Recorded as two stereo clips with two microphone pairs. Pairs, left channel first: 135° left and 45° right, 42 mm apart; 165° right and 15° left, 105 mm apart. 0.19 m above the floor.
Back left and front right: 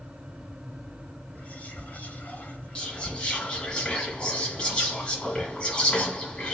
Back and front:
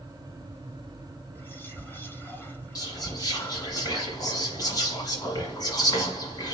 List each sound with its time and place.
1.4 s whispering: 135° left, 1.4 m
2.8 s whispering: straight behind, 1.4 m